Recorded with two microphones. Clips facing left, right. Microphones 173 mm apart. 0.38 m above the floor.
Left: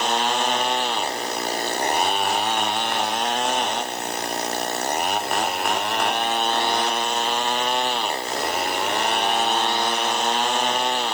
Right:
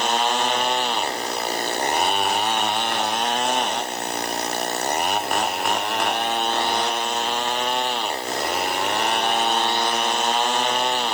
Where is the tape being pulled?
I don't hear tape being pulled.